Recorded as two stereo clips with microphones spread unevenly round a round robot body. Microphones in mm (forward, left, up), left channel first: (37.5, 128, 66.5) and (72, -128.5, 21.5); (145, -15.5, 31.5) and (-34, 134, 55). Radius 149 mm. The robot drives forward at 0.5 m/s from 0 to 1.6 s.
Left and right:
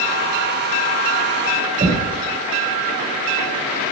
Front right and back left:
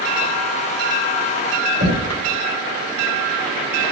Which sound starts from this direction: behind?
Knocking, at 1.8 s.